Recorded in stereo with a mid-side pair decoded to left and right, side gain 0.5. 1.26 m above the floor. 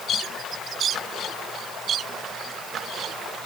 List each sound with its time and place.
Only background noise.